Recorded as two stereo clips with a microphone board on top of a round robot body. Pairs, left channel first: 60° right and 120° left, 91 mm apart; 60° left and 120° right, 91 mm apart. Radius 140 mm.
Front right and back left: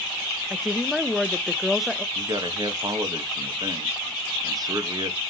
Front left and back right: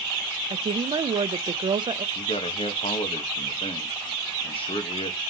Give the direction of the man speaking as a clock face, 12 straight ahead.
10 o'clock.